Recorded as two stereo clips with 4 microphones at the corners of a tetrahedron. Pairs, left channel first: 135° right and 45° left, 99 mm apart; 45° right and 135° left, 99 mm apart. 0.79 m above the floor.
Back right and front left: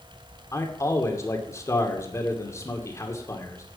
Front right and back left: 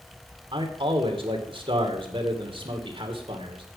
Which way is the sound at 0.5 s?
165° left.